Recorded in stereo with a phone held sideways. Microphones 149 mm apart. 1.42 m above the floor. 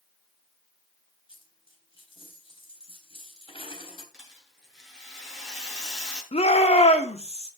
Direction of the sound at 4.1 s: 5° right (ahead or behind).